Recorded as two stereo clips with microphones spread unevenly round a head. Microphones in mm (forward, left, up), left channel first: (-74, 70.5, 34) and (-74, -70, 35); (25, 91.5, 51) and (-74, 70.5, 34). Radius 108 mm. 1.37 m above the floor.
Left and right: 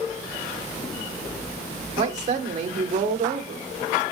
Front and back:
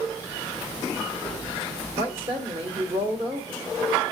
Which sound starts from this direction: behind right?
A woman speaking, at 2.0 s.